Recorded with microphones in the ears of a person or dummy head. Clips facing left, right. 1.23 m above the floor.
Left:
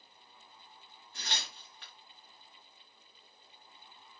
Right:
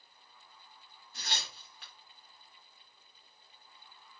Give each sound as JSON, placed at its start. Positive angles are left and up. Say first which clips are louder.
{"t": 1.1, "sound": "tearing paper", "louder": "even", "side_deg": -5, "distance_m": 1.2}